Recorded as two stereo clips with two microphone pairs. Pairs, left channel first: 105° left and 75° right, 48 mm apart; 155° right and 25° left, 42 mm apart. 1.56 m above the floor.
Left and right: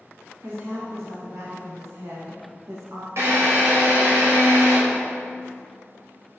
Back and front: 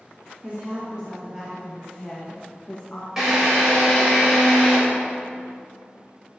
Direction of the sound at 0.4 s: 35° right.